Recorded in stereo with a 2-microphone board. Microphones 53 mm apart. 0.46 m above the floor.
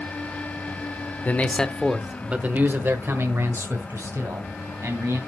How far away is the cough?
No cough in this recording.